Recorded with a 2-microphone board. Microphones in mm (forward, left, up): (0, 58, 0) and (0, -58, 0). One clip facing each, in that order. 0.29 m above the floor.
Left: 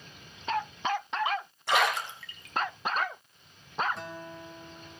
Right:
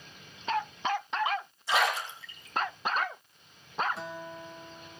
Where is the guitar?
Centre (ahead or behind), 1.4 m.